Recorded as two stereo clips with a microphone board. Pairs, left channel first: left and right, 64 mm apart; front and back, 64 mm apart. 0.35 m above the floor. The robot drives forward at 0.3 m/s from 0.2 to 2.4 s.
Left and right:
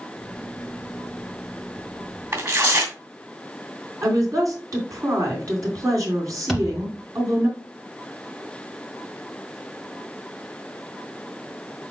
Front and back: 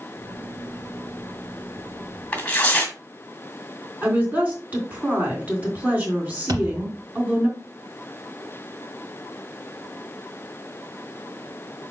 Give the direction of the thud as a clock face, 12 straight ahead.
6 o'clock.